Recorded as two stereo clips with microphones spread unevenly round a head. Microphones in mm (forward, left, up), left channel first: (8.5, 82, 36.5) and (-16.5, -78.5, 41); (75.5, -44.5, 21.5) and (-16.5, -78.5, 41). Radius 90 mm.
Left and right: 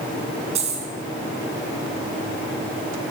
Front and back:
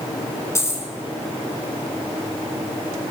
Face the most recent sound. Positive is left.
turn(degrees=-45)